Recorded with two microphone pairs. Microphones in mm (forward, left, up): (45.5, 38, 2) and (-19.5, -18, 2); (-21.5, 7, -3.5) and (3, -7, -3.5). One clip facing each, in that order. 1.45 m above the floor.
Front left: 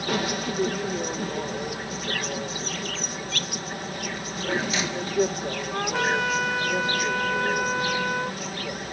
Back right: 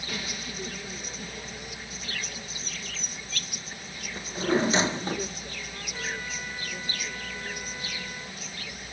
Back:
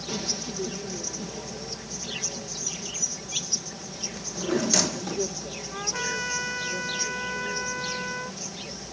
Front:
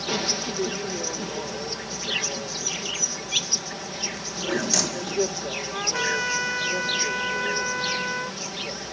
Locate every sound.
0.0 s an insect: 25° left
4.2 s a drawer: 125° right
5.7 s a trumpet: 45° left